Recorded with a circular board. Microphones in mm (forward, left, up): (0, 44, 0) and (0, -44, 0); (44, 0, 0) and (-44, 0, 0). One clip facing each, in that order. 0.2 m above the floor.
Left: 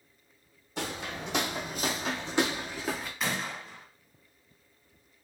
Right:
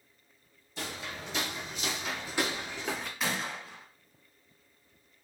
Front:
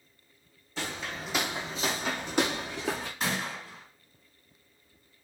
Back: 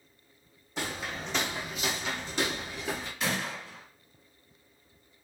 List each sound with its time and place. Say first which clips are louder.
0.8 s footsteps: left 4 dB, back 1 dB; 105° left, 0.7 m; by 3.1 s 5° left, 0.9 m
3.2 s a gunshot: left 1 dB, back 1 dB; straight ahead, 1.1 m